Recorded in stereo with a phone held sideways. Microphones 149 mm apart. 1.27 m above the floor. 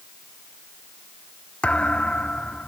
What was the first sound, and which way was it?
A thud, 10° left (ahead or behind).